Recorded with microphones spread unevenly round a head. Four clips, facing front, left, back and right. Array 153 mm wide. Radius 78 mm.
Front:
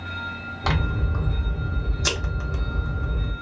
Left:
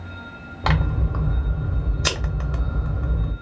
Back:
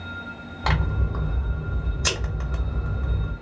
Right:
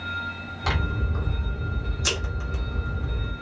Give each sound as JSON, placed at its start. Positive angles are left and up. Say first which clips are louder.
{"t": 0.6, "sound": "scissors", "louder": "left 5 dB, even", "azimuth_deg": 70, "distance_m": 1.2}